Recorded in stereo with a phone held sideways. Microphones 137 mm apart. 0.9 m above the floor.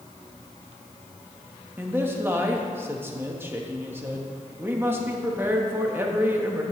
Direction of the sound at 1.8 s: 15° right (ahead or behind).